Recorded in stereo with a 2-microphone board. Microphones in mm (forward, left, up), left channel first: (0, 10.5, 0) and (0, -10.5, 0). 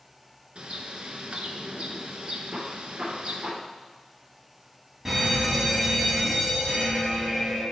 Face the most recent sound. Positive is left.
turn(degrees=-20)  # may be behind; listen again after turning